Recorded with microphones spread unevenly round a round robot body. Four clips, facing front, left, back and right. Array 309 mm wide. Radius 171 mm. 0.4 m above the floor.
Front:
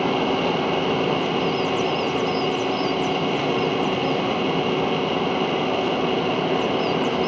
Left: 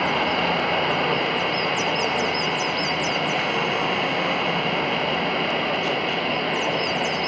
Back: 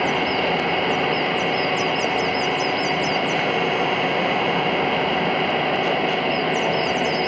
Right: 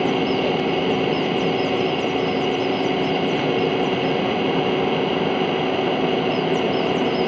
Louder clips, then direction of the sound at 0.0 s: Right 3 dB, even; 75° right.